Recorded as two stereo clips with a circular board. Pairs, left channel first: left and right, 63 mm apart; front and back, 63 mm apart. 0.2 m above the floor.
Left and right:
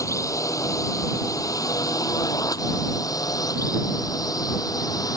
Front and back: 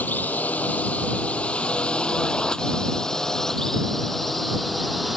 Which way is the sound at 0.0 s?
60° left.